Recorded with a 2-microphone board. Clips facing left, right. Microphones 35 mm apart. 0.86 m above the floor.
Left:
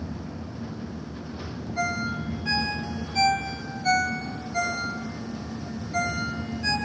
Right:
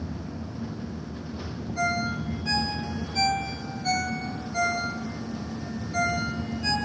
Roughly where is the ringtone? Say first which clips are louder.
Right 1 dB; centre.